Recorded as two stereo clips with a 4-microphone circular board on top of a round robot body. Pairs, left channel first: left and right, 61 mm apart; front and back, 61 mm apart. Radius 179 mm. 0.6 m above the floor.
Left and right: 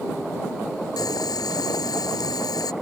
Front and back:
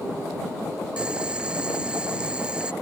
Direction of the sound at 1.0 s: 105° left.